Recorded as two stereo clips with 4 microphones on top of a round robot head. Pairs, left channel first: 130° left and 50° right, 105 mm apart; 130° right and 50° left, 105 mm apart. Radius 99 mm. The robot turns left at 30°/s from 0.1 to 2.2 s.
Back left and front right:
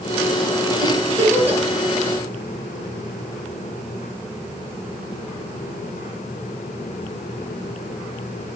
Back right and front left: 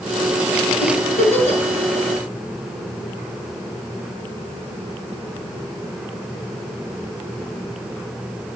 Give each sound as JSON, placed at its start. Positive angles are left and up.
{"t": 0.8, "sound": "a giggle", "azimuth_deg": -105, "distance_m": 2.5}